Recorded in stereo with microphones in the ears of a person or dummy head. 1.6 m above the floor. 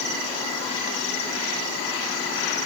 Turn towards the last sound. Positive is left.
No sound to turn to.